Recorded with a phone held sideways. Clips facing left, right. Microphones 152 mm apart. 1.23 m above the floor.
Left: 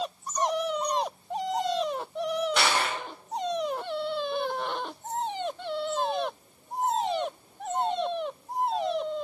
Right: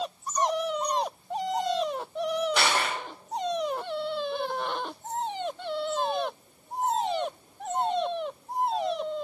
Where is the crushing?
Centre (ahead or behind), 0.9 m.